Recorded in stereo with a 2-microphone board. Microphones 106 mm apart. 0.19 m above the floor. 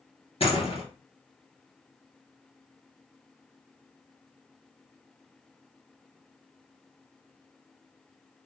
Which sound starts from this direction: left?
A door slam, at 0.4 s.